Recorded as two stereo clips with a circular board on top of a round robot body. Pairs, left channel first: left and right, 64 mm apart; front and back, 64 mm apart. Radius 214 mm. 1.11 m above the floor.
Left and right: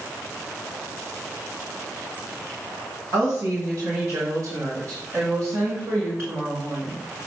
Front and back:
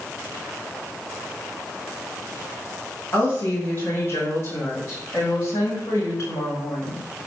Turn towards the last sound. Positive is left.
turn(degrees=-40)